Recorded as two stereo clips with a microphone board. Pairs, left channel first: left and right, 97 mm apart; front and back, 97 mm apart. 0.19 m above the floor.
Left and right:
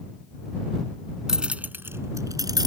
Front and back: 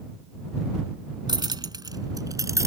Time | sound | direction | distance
1.3 | keys jangling | 175° right | ?